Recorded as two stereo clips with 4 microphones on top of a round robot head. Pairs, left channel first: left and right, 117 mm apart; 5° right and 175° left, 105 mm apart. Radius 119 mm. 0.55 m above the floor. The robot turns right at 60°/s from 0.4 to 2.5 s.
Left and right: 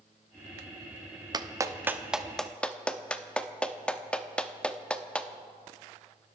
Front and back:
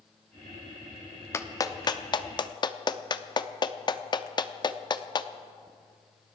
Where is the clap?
55° right, 0.9 m; by 5.3 s 15° left, 0.9 m.